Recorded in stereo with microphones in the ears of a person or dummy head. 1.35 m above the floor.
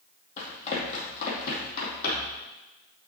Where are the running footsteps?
40° left (ahead or behind), 2.5 m; by 2.4 s 60° left (ahead or behind), 3 m.